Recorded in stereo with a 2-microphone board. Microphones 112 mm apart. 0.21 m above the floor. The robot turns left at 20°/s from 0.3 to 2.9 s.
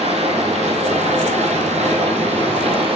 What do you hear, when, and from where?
0.0 s running water: 65° right, 4 m; by 3.0 s 120° right, 4 m